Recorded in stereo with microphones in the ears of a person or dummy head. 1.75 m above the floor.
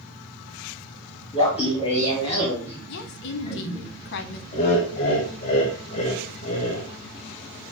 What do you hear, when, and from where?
1.3 s laughter: 30° left (ahead or behind), 1.2 m
2.9 s a woman speaking: 60° left (ahead or behind), 0.6 m
4.5 s laughter: 35° left (ahead or behind), 0.8 m